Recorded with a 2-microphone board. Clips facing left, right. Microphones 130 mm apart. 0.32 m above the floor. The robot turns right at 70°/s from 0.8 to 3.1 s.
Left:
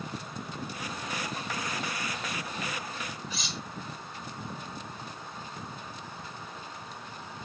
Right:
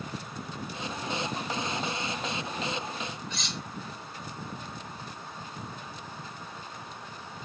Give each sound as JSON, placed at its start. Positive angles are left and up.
{"t": 3.3, "sound": "cutlery clinking", "side_deg": 5, "distance_m": 0.7}